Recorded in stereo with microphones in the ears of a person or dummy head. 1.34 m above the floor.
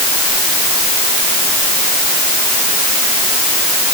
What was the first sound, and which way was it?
Only background noise.